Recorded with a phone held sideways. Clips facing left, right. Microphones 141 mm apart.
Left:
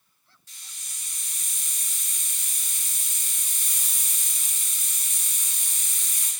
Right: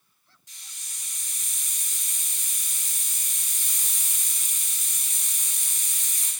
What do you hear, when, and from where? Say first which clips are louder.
0.5 s a hiss: left 1 dB; 20° right (ahead or behind), 0.9 m